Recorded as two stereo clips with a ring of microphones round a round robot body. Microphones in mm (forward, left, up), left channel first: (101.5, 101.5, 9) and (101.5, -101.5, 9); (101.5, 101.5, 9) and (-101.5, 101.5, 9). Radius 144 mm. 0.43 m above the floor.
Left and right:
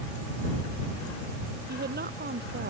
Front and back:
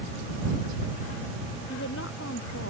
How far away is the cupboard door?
I don't hear a cupboard door.